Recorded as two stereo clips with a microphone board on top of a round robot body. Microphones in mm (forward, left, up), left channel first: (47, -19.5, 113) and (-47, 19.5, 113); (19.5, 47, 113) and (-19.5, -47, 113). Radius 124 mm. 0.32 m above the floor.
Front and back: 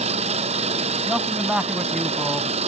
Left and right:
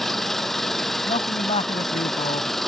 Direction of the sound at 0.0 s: 155° left.